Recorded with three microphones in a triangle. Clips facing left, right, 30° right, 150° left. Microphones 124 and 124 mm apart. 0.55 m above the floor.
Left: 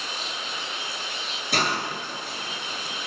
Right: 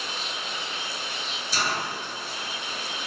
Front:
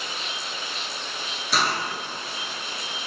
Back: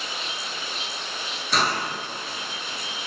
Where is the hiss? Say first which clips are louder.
Left 3 dB, back 1 dB; 55° left, 7.5 m.